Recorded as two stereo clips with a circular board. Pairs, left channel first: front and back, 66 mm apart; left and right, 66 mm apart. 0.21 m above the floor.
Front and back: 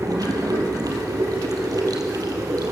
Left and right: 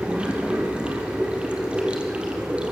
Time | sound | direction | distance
0.0 | running water | 165° right | 3.5 m